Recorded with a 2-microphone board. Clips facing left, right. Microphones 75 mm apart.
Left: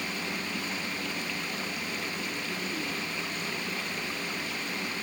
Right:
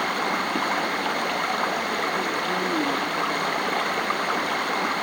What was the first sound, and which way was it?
Running water, 60° right (ahead or behind).